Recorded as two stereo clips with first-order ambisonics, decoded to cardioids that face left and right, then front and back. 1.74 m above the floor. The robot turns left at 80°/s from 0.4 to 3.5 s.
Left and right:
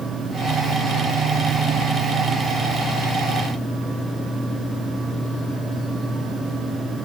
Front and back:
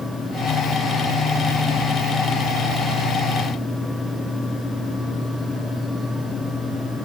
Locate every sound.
Only background noise.